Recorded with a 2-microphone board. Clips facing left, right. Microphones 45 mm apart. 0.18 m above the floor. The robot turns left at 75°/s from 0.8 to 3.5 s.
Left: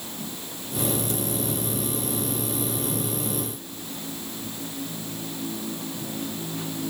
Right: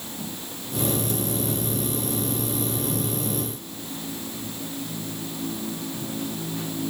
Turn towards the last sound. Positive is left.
No sound to turn to.